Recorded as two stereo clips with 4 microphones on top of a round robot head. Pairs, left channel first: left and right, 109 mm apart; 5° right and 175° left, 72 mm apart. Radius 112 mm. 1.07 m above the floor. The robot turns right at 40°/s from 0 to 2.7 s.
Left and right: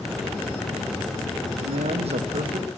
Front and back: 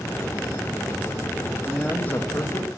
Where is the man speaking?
90° right, 1.6 m; by 2.7 s 45° right, 1.6 m.